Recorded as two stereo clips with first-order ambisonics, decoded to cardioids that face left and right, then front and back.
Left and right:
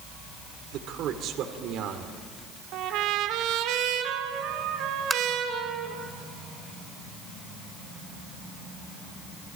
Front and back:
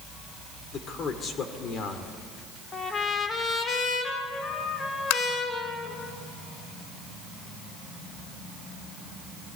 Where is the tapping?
5° right, 1.0 m.